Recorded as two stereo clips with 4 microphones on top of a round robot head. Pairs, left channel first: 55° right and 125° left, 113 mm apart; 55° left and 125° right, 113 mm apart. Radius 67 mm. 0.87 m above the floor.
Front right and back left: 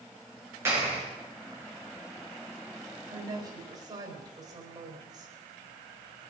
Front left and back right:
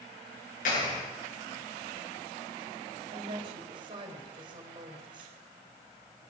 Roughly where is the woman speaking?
Behind.